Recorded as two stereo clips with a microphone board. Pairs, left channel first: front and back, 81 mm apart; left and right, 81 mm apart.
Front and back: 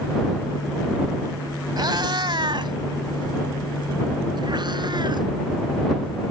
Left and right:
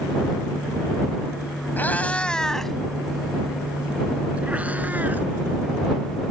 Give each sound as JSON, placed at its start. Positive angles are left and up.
{"t": 1.8, "sound": "a cat meowing", "azimuth_deg": 155}